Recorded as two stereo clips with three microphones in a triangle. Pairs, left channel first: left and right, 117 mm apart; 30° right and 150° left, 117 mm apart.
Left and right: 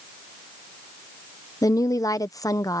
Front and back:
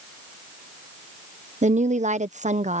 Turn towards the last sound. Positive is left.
turn(degrees=150)